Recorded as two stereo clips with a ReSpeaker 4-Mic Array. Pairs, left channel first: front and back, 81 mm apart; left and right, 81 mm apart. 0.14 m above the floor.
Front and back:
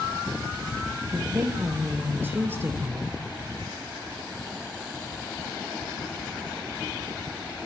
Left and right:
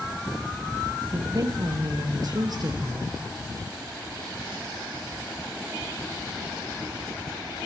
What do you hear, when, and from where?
1.1 s a woman speaking: 120° right, 3 m